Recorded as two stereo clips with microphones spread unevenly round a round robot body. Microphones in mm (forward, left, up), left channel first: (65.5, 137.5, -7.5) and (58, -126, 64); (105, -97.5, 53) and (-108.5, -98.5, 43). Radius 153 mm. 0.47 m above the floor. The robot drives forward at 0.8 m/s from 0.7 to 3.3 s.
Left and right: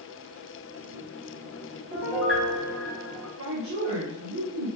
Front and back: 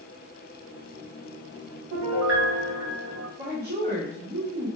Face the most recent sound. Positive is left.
turn(degrees=-150)